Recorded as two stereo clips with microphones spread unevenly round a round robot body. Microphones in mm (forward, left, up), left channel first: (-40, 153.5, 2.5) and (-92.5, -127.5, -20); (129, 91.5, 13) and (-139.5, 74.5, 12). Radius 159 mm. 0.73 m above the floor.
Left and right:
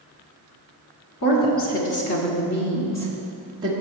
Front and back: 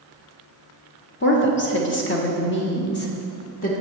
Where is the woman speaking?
45° left, 1.4 m; by 3.7 s 40° right, 1.0 m.